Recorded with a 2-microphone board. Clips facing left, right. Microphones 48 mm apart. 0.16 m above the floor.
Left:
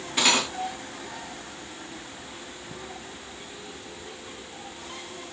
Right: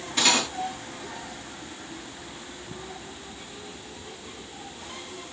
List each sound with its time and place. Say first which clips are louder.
0.2 s cutlery clinking: even; 10° left (ahead or behind), 0.9 m